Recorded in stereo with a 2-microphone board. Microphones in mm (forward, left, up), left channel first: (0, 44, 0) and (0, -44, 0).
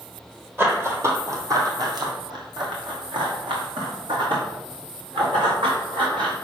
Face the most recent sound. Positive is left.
turn(degrees=-75)  # may be behind; listen again after turning